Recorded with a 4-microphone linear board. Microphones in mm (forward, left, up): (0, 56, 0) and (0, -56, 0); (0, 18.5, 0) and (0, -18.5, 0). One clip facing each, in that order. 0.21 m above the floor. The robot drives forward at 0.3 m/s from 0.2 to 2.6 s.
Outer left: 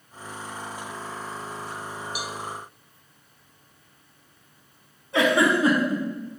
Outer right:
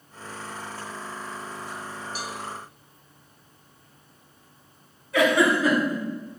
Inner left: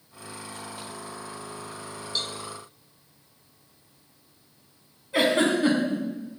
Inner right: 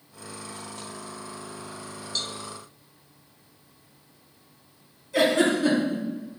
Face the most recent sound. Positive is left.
turn(degrees=25)  # may be behind; listen again after turning